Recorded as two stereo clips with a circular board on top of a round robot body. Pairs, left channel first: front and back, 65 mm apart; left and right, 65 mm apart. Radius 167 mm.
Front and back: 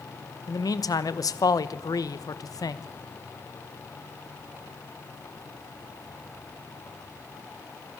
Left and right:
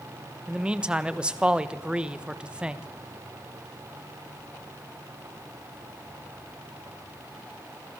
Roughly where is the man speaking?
Ahead.